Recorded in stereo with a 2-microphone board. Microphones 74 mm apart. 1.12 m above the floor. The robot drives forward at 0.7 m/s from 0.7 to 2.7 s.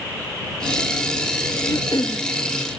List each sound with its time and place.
1.6 s throat clearing: 55° left (ahead or behind)